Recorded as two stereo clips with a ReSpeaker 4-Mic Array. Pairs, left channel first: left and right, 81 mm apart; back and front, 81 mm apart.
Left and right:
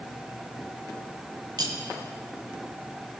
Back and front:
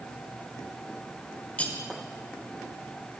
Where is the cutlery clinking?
110° right, 1.2 m.